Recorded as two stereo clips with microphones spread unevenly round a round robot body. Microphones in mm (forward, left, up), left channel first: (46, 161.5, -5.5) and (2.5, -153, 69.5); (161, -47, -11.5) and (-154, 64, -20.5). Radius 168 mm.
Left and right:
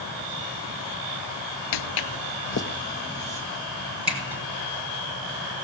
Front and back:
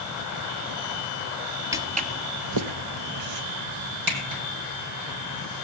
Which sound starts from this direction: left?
Footsteps, at 1.7 s.